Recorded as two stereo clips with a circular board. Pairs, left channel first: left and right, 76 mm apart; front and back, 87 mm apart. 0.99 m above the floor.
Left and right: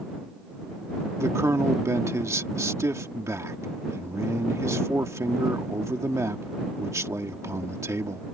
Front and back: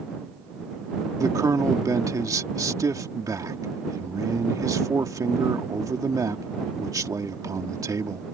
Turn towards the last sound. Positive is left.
turn(degrees=-135)